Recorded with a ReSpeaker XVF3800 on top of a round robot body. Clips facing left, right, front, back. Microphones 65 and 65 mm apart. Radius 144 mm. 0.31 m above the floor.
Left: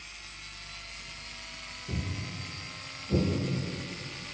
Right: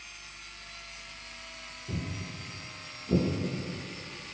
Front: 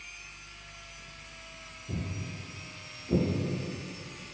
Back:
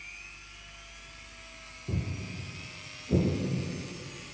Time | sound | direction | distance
1.9 | footsteps | 175° right | 0.6 m